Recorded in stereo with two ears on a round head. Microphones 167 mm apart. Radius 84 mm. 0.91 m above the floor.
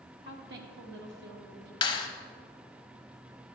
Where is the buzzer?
No buzzer in this recording.